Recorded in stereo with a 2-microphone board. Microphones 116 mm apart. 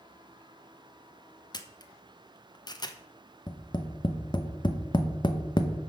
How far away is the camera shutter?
About 0.9 m.